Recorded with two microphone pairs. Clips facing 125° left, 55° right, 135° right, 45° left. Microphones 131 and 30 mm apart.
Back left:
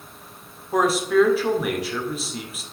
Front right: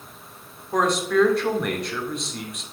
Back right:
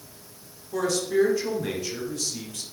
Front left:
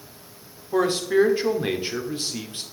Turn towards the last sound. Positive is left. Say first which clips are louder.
# back left 2 dB, front left 4 dB
turn(degrees=40)